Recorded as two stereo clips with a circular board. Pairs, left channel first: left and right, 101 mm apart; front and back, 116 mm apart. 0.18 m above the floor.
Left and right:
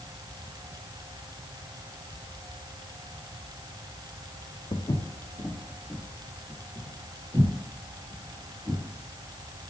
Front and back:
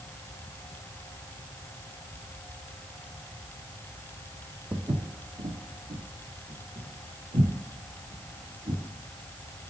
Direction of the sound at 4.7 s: 120° left.